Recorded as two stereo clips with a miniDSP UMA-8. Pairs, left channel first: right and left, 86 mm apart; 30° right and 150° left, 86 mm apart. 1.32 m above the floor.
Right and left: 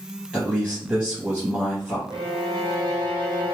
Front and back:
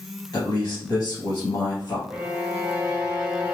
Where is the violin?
80° left, 0.9 m.